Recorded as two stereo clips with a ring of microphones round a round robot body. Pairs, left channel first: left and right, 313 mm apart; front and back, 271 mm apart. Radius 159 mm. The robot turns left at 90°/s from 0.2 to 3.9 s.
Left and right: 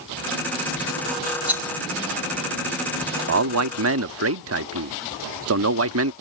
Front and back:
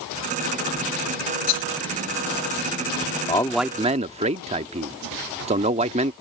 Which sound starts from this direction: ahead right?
A man speaking, at 3.3 s.